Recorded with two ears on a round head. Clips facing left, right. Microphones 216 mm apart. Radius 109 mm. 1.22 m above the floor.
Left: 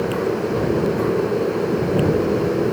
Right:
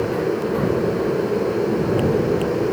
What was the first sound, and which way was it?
Only background noise.